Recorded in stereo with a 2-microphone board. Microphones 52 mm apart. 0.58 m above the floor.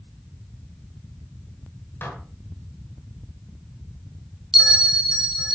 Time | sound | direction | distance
2.0 | dishes clattering | 40° left (ahead or behind) | 2.5 m
4.5 | a bell | 5° right (ahead or behind) | 1.5 m